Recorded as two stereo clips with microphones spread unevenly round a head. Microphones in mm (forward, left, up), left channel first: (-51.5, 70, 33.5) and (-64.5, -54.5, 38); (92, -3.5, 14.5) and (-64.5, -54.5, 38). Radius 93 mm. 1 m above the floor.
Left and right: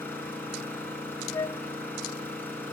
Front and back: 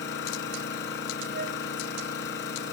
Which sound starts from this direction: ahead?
An engine running, at 0.0 s.